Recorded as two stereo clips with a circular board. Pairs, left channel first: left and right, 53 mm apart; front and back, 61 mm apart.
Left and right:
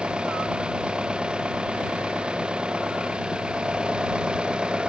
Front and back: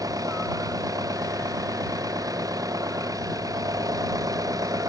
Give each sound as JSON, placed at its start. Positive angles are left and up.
{"t": 0.0, "sound": "an engine running", "azimuth_deg": -160}